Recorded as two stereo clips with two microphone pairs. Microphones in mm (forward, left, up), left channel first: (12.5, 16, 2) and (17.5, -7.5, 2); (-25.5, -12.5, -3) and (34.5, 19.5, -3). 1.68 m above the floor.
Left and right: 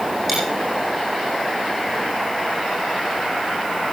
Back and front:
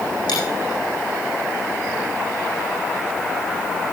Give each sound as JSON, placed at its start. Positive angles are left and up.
{"t": 0.3, "sound": "a dropped coin", "azimuth_deg": -160, "distance_m": 9.5}